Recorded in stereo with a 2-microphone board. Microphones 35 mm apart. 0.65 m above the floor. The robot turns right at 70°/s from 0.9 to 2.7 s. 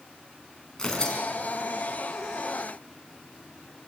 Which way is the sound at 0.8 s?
15° left (ahead or behind).